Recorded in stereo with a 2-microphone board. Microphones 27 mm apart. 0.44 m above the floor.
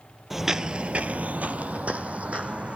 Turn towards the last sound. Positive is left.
turn(degrees=-50)  # may be behind; listen again after turning